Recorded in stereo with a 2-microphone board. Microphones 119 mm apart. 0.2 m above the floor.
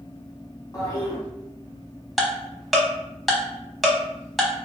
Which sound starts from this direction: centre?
Ticking, at 2.2 s.